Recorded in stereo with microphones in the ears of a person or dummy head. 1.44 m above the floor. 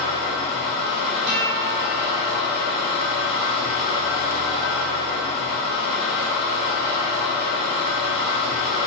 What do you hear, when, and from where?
0.0 s an engine running: 60° left (ahead or behind), 1.7 m
1.3 s a guitar: 35° right (ahead or behind), 0.6 m